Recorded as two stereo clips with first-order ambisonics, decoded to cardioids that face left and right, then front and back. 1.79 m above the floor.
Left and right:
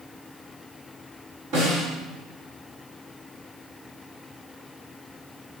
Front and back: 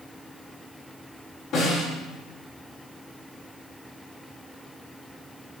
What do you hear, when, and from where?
1.5 s a snare drum: 50° right, 5.5 m